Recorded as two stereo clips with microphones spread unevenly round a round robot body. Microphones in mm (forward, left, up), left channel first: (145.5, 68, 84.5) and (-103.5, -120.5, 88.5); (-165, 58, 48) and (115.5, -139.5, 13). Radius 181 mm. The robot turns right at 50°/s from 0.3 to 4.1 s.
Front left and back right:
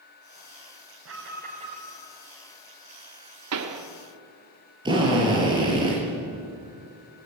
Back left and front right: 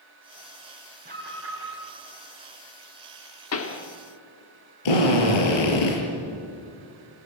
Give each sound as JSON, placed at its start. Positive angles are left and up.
{"t": 1.1, "sound": "an alarm", "azimuth_deg": -100, "distance_m": 5.0}
{"t": 3.5, "sound": "a pop", "azimuth_deg": -170, "distance_m": 1.9}
{"t": 4.8, "sound": "a drill", "azimuth_deg": 140, "distance_m": 6.0}